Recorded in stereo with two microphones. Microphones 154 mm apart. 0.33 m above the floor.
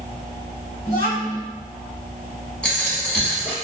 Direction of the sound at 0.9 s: 35° left (ahead or behind).